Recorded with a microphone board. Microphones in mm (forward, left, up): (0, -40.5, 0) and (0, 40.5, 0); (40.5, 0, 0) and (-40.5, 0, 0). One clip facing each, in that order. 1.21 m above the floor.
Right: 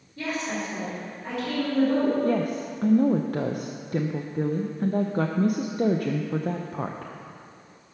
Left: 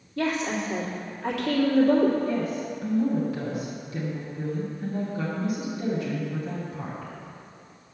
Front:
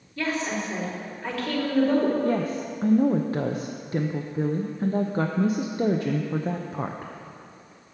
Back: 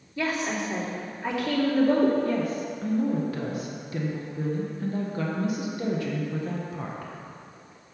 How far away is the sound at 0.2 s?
About 2.5 m.